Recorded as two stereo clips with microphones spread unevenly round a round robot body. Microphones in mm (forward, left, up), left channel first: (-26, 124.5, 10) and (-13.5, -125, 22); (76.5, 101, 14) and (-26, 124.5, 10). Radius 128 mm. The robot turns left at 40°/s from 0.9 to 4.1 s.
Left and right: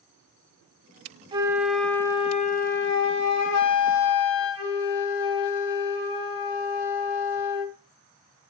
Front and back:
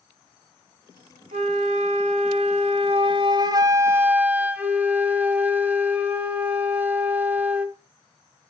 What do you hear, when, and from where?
1.3 s a flute: 160° right, 1.2 m; by 7.8 s 90° left, 1.2 m